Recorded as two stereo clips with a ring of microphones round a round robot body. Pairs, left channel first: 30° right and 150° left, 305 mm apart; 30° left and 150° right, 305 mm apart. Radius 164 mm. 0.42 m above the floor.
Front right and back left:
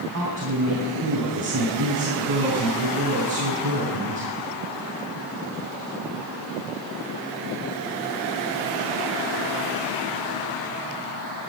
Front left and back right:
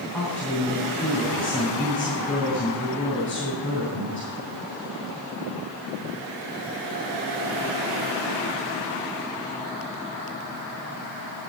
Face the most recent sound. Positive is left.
turn(degrees=115)